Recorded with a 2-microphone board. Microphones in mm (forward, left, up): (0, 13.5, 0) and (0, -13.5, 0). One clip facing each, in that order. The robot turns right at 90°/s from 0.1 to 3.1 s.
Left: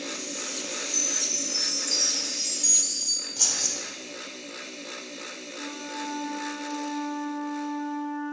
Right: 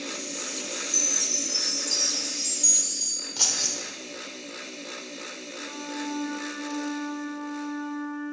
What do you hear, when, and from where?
0.9 s a chime: 100° right, 1.0 m; by 3.3 s 95° left, 1.0 m
3.4 s keys jangling: 35° right (ahead or behind), 0.7 m
5.5 s a flute: 15° left (ahead or behind), 1.4 m